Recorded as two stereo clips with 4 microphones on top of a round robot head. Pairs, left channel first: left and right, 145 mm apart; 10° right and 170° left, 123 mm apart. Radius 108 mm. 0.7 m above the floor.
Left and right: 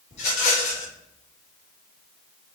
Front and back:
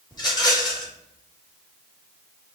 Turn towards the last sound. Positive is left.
turn(degrees=45)